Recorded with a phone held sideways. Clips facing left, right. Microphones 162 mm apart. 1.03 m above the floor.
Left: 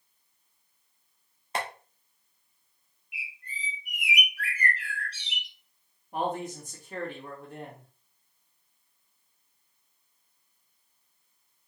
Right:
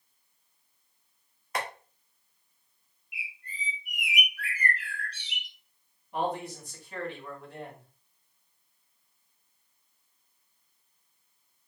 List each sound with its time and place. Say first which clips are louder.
1.6 s tapping: left 1 dB; 30° left (ahead or behind), 1.4 m
3.1 s a bird: even; 5° left (ahead or behind), 1.7 m
6.1 s a man speaking: even; 45° left (ahead or behind), 2 m